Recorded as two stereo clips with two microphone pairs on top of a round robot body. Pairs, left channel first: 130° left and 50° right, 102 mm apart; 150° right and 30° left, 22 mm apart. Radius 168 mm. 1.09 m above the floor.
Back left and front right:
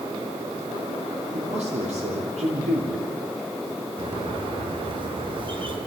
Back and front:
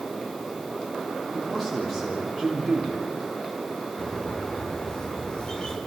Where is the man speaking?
60° right, 4 m.